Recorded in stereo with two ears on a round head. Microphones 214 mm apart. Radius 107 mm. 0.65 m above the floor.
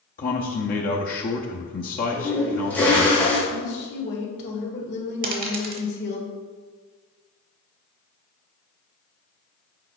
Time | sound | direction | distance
0.2 | a man speaking | 35° left (ahead or behind) | 0.7 m
2.1 | a toilet flushing | 5° left (ahead or behind) | 2.5 m
3.5 | a woman speaking | 45° left (ahead or behind) | 1.8 m
5.2 | a dropped coin | 35° right (ahead or behind) | 1.1 m